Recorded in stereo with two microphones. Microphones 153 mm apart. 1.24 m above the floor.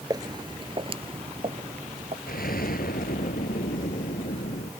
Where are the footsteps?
25° right (ahead or behind); by 2.2 s 45° right (ahead or behind).